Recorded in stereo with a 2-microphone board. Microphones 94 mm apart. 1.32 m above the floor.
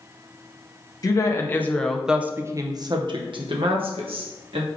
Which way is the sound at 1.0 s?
35° left (ahead or behind).